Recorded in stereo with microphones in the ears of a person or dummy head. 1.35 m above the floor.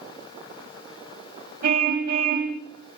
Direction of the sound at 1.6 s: 50° right (ahead or behind).